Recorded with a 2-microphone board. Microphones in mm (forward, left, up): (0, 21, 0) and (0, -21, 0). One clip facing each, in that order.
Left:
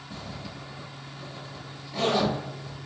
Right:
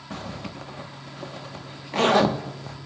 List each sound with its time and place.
0.1 s a zipper: 75° right (ahead or behind), 1.0 m